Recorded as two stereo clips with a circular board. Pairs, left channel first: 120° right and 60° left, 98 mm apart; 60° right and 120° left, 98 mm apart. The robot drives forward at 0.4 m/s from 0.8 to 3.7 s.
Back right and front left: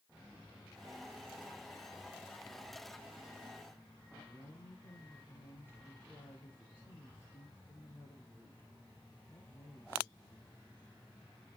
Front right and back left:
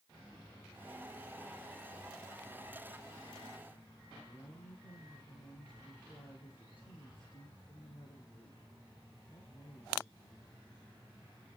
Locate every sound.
4.3 s a woman speaking: 60° right, 2.5 m